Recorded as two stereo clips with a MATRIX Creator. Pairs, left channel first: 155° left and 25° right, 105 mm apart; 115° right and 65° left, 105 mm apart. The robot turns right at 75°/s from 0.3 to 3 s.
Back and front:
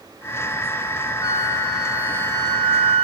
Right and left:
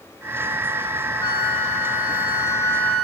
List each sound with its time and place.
1.2 s a flute: 160° right, 1.2 m; by 3.0 s 25° right, 1.2 m